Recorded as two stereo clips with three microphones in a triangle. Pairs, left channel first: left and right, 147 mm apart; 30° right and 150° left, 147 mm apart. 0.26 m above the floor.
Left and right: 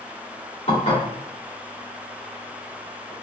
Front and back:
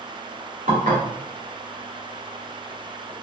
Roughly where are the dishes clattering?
Behind left.